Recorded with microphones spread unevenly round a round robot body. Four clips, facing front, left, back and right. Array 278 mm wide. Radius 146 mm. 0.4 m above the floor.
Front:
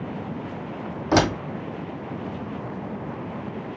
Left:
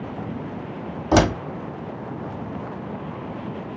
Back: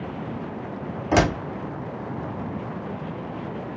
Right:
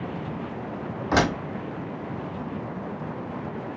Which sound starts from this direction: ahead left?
A door slam, at 1.1 s.